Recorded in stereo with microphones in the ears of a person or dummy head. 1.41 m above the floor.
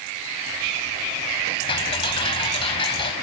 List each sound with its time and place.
1.7 s ticking: 25° left (ahead or behind)